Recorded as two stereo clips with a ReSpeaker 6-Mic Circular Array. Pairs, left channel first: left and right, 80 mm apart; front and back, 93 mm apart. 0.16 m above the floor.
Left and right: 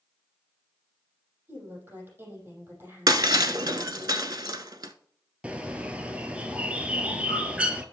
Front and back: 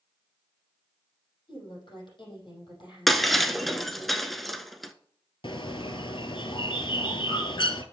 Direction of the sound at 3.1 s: 90° right.